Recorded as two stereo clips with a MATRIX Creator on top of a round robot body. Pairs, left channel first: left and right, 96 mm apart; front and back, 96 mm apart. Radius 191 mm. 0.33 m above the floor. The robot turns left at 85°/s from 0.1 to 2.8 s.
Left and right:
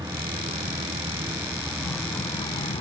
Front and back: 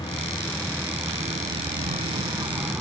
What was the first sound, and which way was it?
An aircraft, 40° right.